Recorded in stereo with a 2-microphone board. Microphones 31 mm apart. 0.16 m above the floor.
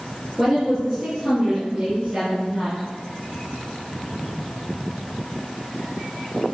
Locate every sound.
0.4 s a woman speaking: centre (ahead or behind), 3.5 m; by 2.8 s 15° right (ahead or behind), 2.5 m